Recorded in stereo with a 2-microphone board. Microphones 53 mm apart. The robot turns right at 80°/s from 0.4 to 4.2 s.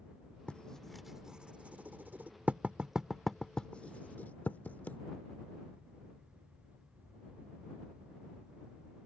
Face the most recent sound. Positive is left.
turn(degrees=35)  # may be behind; listen again after turning